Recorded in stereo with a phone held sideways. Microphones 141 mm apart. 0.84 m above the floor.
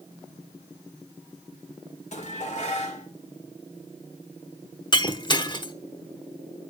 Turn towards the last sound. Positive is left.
turn(degrees=35)  # may be behind; listen again after turning